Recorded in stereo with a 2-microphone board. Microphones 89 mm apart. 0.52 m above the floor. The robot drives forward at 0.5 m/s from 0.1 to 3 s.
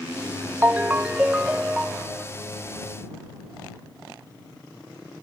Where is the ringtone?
20° right (ahead or behind); by 2.2 s 10° right (ahead or behind).